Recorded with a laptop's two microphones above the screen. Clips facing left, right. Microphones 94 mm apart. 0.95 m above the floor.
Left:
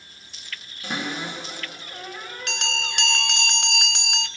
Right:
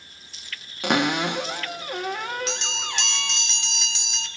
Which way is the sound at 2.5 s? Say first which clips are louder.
Left 1 dB; 65° left (ahead or behind).